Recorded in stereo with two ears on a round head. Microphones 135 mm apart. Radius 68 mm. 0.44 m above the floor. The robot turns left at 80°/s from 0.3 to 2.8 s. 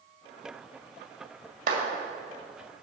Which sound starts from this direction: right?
A clap, at 1.7 s.